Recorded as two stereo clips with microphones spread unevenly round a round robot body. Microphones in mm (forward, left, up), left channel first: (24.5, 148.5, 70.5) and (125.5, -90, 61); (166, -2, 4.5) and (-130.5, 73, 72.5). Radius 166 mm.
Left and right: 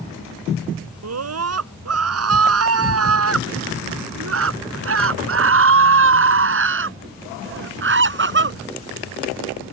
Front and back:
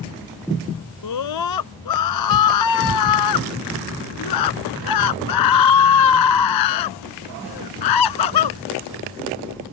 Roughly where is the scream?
Ahead right.